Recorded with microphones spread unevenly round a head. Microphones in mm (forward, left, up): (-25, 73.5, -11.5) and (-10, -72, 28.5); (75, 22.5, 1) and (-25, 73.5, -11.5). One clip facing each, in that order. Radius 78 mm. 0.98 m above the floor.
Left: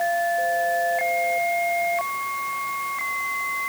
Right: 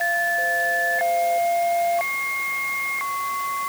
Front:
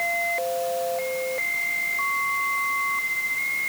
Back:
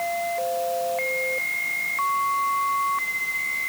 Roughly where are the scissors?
No scissors in this recording.